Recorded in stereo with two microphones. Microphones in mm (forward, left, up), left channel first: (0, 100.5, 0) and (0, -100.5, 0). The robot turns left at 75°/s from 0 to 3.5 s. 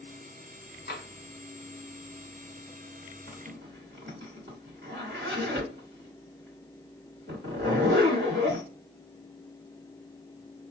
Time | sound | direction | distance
0.9 | tapping | 60° left (ahead or behind) | 1.2 m
3.3 | a zipper | 55° right (ahead or behind) | 1.6 m